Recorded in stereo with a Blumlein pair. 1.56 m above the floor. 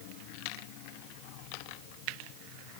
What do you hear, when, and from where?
Only background noise.